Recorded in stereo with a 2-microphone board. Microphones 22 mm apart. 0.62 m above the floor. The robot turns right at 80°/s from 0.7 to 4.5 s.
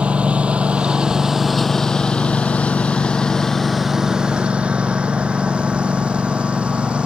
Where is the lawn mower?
65° right (ahead or behind); by 7.1 s 70° right (ahead or behind).